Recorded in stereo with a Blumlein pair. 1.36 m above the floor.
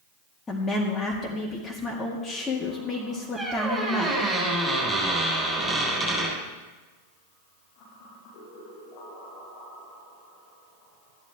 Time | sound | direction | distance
0.5 | a woman speaking | 15° left | 2.0 m
3.4 | a squeak | straight ahead | 6 m